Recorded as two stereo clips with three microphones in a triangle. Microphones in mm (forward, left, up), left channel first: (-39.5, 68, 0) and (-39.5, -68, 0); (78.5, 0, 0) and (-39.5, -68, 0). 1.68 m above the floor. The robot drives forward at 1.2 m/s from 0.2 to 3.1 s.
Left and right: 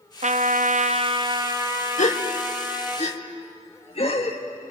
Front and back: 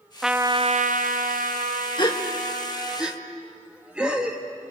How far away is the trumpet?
About 0.7 m.